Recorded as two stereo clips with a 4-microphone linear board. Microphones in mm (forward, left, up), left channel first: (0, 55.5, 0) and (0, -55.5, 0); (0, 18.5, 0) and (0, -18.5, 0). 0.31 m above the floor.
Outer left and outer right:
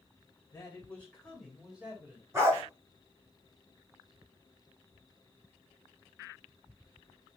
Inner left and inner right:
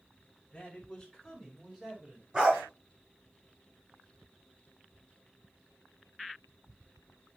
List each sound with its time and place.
0.5 s a man speaking: 25° left (ahead or behind), 1.4 m; by 2.2 s 20° right (ahead or behind), 1.3 m
2.3 s a dog barking: 25° right (ahead or behind), 2 m